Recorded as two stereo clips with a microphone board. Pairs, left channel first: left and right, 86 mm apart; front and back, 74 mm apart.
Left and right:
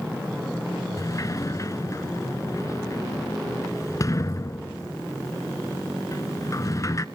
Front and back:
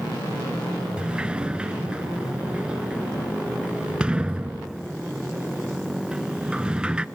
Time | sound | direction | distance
1.0 | a sliding door | 110° left | 0.5 m